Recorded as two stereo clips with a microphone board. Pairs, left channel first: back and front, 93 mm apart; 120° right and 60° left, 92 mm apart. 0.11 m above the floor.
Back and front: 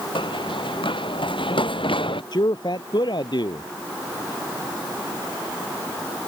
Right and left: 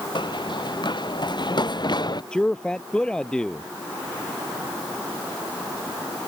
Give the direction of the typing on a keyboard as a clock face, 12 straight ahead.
No typing on a keyboard in this recording.